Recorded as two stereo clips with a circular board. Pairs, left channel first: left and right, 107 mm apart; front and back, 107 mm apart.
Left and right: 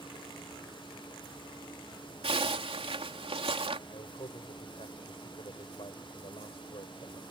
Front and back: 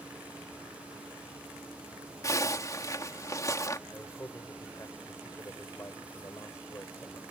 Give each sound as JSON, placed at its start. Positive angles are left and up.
{"t": 2.2, "sound": "a zipper", "azimuth_deg": -60}
{"t": 3.9, "sound": "a man speaking", "azimuth_deg": 65}